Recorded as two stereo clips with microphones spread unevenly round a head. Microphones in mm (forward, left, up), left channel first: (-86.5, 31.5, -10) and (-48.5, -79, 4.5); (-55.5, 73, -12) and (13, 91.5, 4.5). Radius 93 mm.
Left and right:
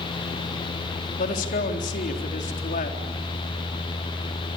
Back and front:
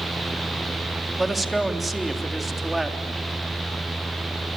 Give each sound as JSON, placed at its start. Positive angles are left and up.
{"t": 1.2, "sound": "a man speaking", "azimuth_deg": 100, "distance_m": 3.5}